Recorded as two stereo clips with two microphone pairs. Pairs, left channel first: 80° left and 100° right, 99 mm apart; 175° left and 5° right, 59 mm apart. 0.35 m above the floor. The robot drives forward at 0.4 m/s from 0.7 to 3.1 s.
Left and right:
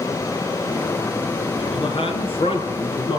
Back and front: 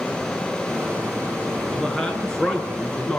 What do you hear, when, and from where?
1.6 s a man speaking: 95° left, 6 m; by 3.2 s 100° left, 6 m